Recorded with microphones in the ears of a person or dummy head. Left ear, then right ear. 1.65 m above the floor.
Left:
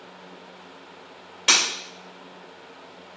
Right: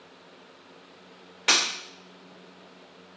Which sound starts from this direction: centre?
Breaking glass, at 1.5 s.